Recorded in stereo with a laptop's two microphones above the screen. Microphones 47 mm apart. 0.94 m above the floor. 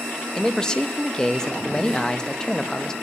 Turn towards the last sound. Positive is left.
turn(degrees=15)  # may be behind; listen again after turning